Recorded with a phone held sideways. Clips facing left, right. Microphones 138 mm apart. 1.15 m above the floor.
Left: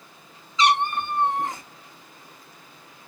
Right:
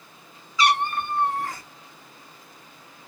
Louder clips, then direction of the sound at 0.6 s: Left 1 dB; 20° left (ahead or behind).